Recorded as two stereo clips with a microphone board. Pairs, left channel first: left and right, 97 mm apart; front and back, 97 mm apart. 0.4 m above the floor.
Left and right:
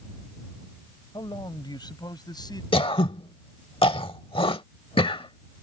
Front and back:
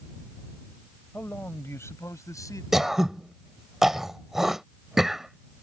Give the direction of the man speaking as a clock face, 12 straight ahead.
10 o'clock.